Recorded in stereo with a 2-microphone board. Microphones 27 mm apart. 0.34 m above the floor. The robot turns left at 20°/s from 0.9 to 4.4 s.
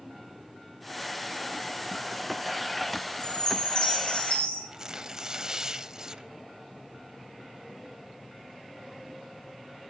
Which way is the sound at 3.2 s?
25° left (ahead or behind).